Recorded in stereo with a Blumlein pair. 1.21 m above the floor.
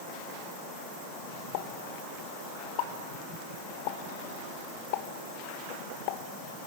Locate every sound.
1.5 s a pop: 45° left, 1.4 m